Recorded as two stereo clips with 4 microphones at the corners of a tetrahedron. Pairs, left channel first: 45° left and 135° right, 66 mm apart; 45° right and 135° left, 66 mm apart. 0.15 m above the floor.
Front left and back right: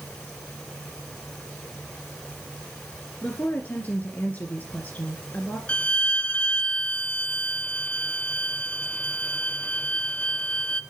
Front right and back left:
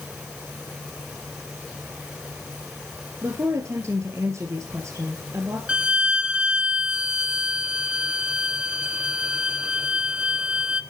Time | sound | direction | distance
3.2 | a woman speaking | 105° left | 2 m
5.7 | a violin | 90° left | 0.7 m